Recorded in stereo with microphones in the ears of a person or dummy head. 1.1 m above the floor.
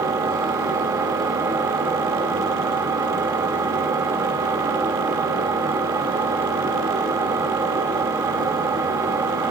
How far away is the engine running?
About 2.5 m.